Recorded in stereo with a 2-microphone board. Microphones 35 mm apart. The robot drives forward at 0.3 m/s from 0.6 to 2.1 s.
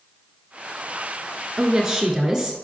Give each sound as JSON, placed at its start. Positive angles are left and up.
{"t": 1.6, "sound": "a woman speaking", "side_deg": -15, "distance_m": 1.2}